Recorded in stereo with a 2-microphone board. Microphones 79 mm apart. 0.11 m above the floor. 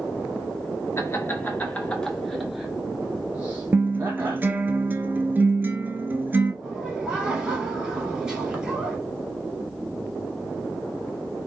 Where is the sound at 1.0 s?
35° left (ahead or behind), 1.3 m; by 4.5 s 35° right (ahead or behind), 1.9 m.